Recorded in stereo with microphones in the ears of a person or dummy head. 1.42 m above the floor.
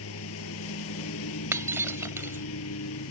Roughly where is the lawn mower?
Left.